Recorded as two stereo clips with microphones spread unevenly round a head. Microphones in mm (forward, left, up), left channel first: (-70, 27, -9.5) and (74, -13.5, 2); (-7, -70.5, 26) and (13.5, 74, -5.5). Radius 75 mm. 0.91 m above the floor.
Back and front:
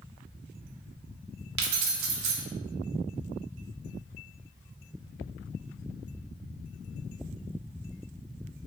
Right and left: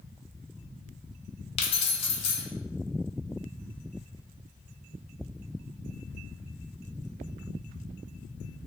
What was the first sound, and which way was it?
Keys jangling, 40° right.